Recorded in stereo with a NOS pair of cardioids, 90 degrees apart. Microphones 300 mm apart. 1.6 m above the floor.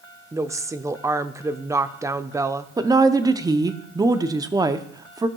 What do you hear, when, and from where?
0.3 s a woman speaking: 10° right, 0.6 m
2.8 s a woman speaking: 10° right, 0.7 m